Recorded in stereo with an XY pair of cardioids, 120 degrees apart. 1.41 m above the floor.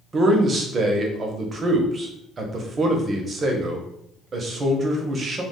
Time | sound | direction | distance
0.1 | a man speaking | 35° right | 0.7 m